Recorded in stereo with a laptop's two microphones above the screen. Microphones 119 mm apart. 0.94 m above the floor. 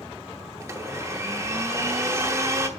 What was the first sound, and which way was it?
A blender, 25° right (ahead or behind).